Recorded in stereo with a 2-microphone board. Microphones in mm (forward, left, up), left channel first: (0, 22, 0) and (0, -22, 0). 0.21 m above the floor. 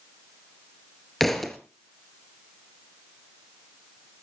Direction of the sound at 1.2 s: 5° left (ahead or behind).